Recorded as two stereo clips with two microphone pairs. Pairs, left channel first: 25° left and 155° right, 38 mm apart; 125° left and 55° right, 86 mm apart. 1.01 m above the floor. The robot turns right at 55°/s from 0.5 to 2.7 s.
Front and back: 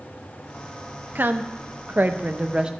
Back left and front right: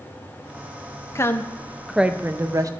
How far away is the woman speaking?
About 0.6 m.